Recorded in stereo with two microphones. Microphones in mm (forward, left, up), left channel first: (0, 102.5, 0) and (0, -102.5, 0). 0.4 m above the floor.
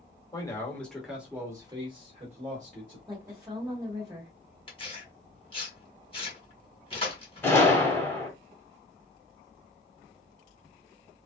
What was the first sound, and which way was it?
A man speaking, 20° left (ahead or behind).